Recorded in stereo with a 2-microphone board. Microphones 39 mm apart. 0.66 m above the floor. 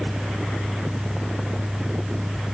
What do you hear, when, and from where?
Only background noise.